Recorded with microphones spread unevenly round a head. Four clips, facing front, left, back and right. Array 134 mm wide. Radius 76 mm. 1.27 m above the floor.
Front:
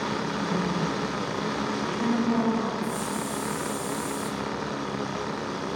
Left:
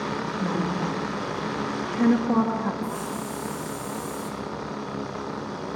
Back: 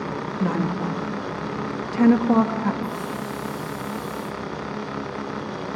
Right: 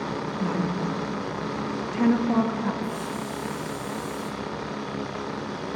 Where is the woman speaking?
160° left, 1.9 m.